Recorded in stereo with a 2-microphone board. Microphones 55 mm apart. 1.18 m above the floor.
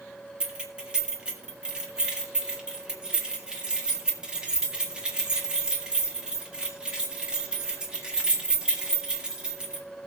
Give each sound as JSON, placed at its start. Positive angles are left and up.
{"t": 0.4, "sound": "keys jangling", "side_deg": -20, "distance_m": 1.7}